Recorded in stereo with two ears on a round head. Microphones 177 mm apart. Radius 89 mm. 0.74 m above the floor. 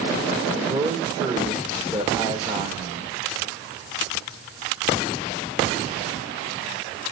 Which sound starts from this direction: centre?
A man speaking, at 0.5 s.